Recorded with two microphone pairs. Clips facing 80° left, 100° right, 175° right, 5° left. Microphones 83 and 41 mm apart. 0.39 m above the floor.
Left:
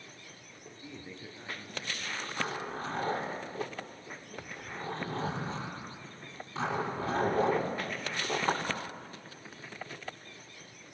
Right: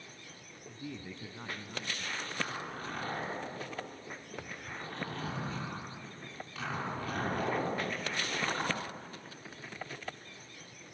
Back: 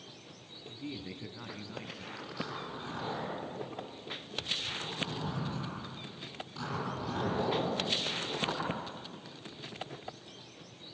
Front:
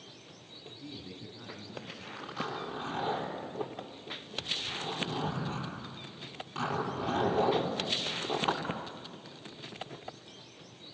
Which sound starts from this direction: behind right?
A man speaking, at 0.7 s.